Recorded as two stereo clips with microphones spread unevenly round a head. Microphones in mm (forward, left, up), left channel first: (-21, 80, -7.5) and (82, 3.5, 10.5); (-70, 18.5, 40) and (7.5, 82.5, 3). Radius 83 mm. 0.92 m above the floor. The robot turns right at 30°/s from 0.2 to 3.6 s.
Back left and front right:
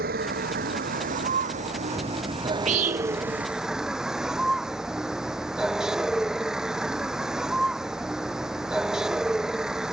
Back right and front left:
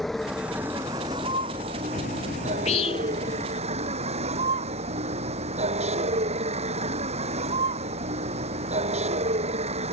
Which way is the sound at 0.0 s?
55° right.